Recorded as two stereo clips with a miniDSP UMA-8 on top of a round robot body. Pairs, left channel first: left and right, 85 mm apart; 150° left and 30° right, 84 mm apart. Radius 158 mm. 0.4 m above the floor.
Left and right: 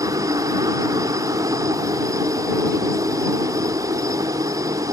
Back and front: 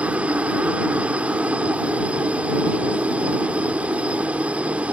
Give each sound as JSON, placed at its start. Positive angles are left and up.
{"t": 0.0, "sound": "a helicopter", "azimuth_deg": -100}